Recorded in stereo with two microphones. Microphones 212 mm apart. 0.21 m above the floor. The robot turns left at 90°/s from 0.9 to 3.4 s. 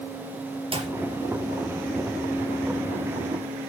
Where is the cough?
I don't hear a cough.